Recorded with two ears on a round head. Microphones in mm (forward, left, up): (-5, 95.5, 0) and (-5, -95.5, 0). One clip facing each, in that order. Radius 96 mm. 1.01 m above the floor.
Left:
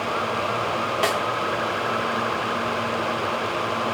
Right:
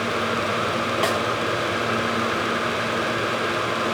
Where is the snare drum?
Centre (ahead or behind), 0.7 m.